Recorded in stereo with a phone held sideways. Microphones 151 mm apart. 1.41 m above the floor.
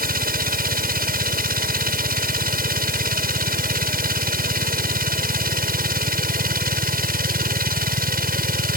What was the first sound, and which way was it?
A machine running, 80° right.